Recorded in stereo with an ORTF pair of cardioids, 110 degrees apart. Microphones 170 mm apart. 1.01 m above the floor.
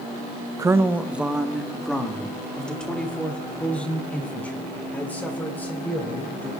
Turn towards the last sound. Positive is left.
turn(degrees=10)